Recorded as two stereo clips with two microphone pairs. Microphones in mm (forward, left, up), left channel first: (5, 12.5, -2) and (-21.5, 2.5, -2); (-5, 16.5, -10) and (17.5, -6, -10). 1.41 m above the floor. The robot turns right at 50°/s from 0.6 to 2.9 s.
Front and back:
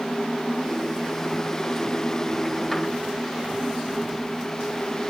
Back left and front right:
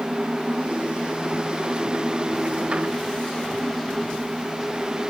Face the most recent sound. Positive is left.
No sound to turn to.